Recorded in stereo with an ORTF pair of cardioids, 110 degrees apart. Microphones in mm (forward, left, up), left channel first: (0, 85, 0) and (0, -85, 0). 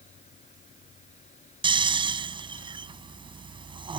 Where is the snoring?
30° right.